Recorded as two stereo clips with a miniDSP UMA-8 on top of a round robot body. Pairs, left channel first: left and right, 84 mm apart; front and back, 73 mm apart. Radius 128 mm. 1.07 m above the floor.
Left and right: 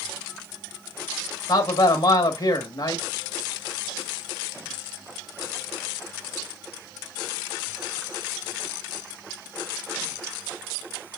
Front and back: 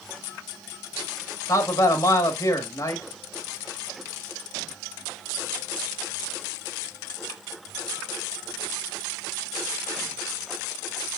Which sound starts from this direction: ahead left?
A man speaking, at 1.5 s.